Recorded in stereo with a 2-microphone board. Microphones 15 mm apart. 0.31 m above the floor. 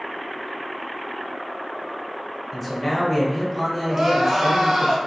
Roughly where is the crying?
Right.